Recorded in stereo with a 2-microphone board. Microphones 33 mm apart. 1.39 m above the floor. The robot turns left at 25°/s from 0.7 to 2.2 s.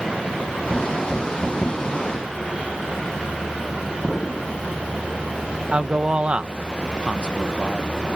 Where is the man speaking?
35° right (ahead or behind).